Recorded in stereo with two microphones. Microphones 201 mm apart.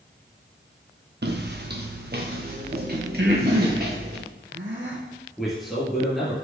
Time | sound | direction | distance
1.2 | footsteps | 55° right (ahead or behind) | 1.2 m
3.2 | breathing | 65° right (ahead or behind) | 2.5 m
5.4 | a man speaking | centre (ahead or behind) | 3 m